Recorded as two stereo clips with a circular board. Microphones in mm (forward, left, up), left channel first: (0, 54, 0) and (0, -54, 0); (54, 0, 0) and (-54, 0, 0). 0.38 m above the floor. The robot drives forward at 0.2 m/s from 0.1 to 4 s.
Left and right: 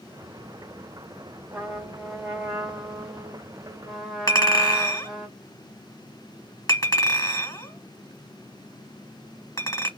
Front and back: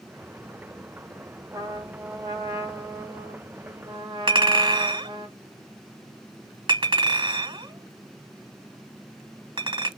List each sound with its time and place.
1.5 s a trumpet: 165° right, 1.1 m; by 5.3 s 170° right, 1.4 m
4.3 s a clink: 150° left, 1.8 m